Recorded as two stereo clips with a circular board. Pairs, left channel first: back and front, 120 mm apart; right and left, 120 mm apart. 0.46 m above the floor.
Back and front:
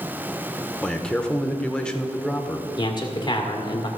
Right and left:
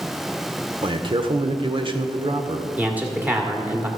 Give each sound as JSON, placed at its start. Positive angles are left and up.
{"t": 0.8, "sound": "a man speaking", "azimuth_deg": 100, "distance_m": 1.0}
{"t": 2.8, "sound": "a man speaking", "azimuth_deg": 160, "distance_m": 1.6}